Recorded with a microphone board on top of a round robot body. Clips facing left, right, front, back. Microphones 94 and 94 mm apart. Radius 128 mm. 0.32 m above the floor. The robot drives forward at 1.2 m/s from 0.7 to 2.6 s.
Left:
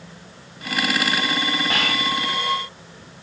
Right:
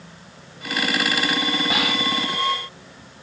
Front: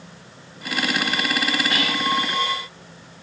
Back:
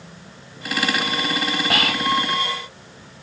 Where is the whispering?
170° right, 2.5 m; by 2.1 s 175° right, 3 m.